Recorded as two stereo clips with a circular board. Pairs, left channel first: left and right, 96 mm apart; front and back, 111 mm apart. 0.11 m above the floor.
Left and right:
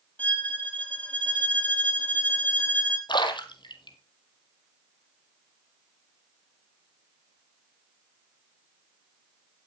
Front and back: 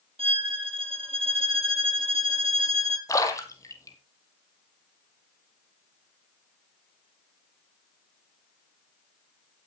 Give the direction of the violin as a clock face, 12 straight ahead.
7 o'clock.